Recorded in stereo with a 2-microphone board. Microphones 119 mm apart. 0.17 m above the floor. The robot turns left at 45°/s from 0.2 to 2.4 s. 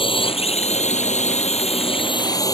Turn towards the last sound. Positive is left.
turn(degrees=30)